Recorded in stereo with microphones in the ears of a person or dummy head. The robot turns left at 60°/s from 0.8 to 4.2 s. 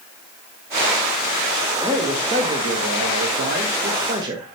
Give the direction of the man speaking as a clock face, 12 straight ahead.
12 o'clock.